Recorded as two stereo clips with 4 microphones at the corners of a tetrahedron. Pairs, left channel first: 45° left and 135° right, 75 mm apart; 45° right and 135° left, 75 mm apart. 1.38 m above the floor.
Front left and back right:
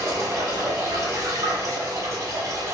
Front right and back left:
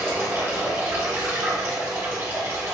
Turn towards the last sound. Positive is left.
turn(degrees=-170)